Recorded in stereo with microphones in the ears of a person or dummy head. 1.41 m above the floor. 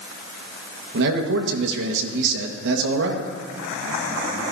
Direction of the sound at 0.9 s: 65° right (ahead or behind).